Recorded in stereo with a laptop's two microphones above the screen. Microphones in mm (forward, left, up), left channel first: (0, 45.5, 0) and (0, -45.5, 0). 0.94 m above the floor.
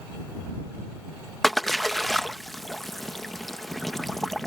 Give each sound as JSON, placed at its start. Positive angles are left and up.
{"t": 1.4, "sound": "a splash", "side_deg": 0}